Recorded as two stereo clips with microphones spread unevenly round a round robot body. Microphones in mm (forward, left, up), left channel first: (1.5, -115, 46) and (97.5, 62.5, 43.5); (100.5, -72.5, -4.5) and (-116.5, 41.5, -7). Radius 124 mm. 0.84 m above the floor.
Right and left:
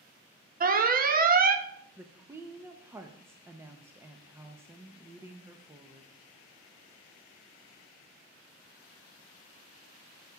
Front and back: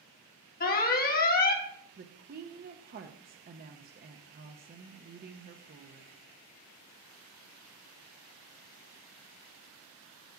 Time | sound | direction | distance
0.6 | an alarm | 25° left | 1.1 m
2.0 | a woman speaking | 130° left | 0.6 m